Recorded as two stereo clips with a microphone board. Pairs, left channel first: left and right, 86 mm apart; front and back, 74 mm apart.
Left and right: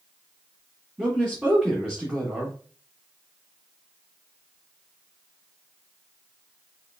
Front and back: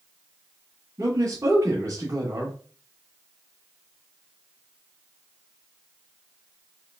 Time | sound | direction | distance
1.0 | a man speaking | 160° right | 2 m